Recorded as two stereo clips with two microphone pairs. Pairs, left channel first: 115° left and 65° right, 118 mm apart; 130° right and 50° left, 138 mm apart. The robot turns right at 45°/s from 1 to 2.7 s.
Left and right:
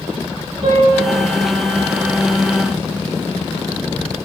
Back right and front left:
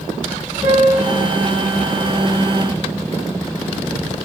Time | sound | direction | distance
0.6 | a piano | 40° right | 4.5 m